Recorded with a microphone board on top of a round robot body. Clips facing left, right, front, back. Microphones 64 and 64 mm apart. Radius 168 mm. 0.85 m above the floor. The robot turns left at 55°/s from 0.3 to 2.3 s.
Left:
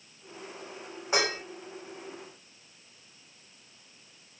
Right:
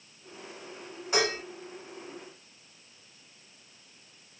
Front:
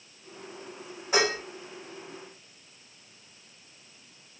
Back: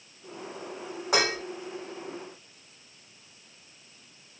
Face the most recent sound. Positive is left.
turn(degrees=90)